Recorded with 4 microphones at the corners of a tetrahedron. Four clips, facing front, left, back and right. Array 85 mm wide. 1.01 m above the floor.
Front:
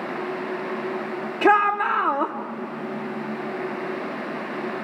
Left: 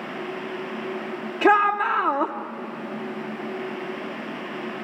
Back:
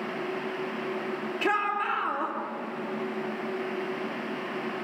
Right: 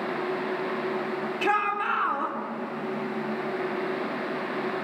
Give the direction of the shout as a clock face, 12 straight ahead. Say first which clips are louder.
Left 8 dB, front 10 dB; 10 o'clock.